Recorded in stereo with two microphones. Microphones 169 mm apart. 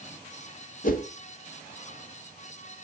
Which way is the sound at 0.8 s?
60° left (ahead or behind).